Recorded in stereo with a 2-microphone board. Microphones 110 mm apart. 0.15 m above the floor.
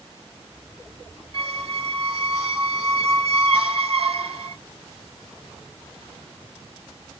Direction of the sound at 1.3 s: 65° right (ahead or behind).